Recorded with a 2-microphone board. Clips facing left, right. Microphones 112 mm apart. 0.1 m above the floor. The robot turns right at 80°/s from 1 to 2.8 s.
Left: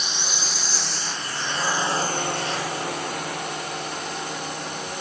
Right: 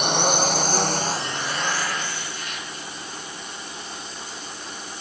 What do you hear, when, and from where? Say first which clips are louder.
0.0 s a drone: right 11 dB; 60° right (ahead or behind); by 5.0 s 70° left (ahead or behind)